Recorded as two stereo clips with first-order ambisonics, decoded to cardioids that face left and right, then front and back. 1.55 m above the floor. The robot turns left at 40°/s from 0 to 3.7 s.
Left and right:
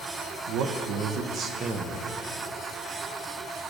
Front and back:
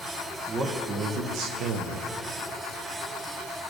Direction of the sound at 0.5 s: 110° right.